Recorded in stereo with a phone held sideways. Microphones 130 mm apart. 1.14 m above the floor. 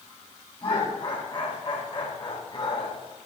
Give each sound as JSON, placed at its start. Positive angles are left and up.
{"t": 0.6, "sound": "laughter", "side_deg": 40, "distance_m": 7.0}